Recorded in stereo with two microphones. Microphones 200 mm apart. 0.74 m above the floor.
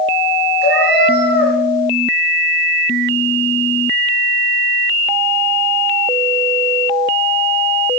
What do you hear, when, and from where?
0.6 s a cat meowing: 60° left (ahead or behind), 5.5 m